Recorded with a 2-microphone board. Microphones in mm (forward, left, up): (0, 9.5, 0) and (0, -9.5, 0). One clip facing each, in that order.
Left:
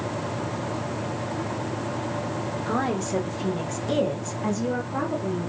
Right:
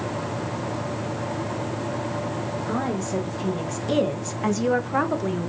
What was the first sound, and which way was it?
A woman speaking, 25° left (ahead or behind).